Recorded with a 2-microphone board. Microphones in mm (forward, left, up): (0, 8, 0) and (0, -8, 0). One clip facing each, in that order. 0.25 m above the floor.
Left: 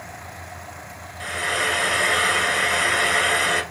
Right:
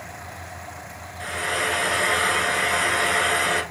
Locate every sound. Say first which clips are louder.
1.2 s frying: left 2 dB; 5° left (ahead or behind), 0.7 m